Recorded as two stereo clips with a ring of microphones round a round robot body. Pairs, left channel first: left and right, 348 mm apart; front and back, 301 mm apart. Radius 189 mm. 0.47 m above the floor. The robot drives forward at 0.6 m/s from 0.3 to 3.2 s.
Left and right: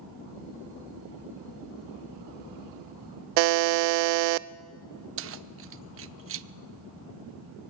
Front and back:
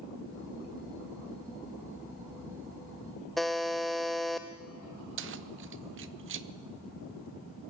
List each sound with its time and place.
3.4 s a buzzer: 90° right, 0.6 m
5.2 s keys jangling: 135° right, 0.8 m